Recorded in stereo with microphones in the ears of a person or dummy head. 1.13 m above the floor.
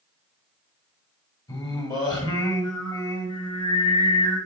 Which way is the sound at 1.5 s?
25° left (ahead or behind).